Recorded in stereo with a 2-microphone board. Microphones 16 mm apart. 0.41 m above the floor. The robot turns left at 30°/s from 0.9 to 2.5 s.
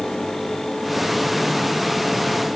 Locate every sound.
Only background noise.